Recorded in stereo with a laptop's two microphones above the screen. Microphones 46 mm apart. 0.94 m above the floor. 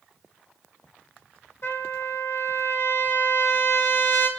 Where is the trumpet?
70° left (ahead or behind), 1.7 m.